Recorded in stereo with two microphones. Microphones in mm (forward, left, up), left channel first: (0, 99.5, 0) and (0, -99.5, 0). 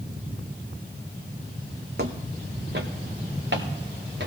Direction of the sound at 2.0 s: 55° right (ahead or behind).